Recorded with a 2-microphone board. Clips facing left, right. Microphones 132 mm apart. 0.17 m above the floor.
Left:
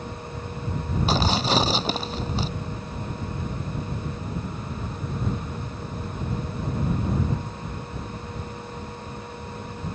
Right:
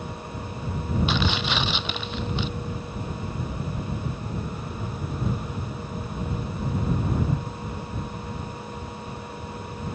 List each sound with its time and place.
1.1 s tearing paper: 35° left (ahead or behind)